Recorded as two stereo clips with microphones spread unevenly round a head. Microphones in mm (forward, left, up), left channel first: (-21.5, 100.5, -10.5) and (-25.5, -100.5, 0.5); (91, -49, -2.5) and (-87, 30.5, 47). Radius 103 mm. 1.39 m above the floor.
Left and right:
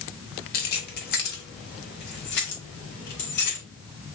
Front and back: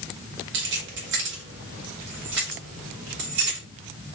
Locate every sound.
0.5 s keys jangling: 130° left, 1.3 m; by 3.6 s 120° left, 3.5 m